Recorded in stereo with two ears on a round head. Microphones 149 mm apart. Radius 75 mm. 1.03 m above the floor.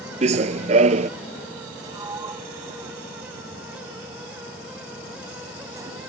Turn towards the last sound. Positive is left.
turn(degrees=-20)  # may be behind; listen again after turning